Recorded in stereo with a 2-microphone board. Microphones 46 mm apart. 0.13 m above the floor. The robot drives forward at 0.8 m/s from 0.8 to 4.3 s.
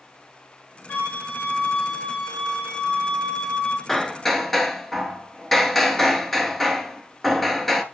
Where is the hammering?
10° left (ahead or behind), 0.6 m; by 7.8 s 5° left (ahead or behind), 0.8 m.